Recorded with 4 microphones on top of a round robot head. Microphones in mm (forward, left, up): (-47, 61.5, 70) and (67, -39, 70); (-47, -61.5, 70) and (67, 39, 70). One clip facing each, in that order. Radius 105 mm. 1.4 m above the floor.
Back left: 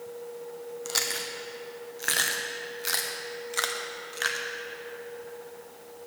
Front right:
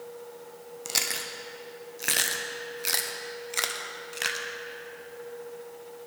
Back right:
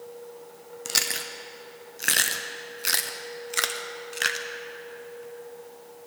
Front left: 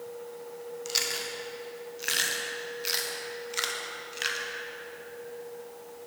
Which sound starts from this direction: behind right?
Chewing, at 0.8 s.